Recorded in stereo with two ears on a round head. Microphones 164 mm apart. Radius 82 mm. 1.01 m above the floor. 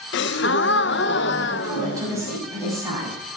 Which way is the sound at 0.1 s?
65° left (ahead or behind).